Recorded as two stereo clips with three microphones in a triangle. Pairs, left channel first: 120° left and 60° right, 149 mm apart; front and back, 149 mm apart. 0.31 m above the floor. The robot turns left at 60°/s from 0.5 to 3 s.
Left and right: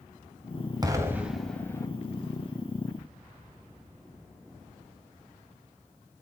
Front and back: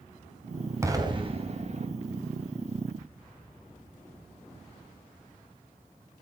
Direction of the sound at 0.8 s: 115° right.